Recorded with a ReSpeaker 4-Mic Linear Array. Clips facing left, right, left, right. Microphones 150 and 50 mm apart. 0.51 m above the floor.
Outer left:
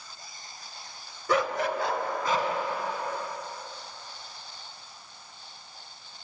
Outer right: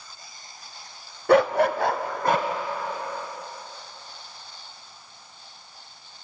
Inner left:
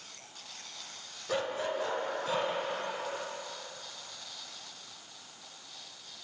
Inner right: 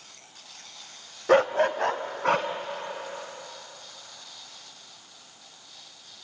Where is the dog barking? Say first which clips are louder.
Outer right 8 dB, inner right 12 dB; 65° right (ahead or behind), 0.8 m.